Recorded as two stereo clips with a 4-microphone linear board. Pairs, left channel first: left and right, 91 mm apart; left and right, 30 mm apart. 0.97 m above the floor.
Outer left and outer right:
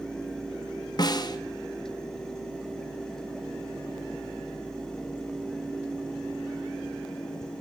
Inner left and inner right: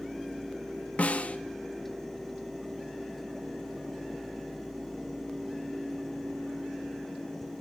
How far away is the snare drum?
About 0.6 m.